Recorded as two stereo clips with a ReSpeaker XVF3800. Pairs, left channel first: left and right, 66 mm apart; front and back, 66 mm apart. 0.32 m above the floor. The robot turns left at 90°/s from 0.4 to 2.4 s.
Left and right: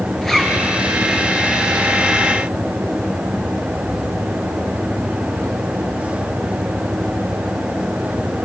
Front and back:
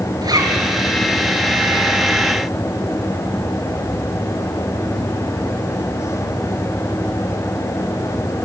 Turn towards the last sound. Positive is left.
turn(degrees=0)